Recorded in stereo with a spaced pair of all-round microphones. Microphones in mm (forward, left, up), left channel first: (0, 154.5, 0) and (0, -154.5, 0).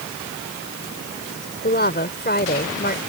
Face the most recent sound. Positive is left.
turn(degrees=30)  # may be behind; listen again after turning